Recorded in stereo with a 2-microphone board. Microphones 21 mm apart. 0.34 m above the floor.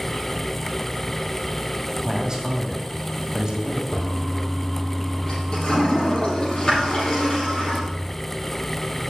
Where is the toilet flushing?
40° left (ahead or behind), 5 m.